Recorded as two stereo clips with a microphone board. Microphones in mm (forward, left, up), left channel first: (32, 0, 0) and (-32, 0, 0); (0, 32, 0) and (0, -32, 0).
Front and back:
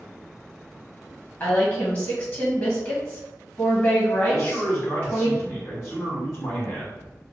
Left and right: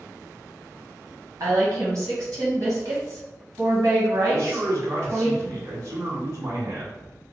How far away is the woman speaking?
About 1.6 m.